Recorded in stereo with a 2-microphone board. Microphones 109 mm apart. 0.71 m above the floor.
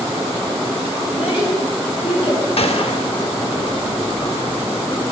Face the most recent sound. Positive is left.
turn(degrees=65)  # may be behind; listen again after turning